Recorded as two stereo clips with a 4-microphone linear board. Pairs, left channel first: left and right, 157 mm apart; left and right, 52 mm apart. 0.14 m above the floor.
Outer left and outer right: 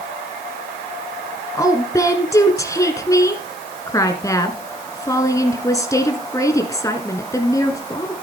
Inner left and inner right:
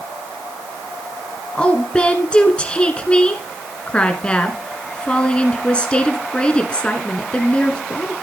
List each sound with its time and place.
1.6 s a woman speaking: 20° left (ahead or behind), 1.4 m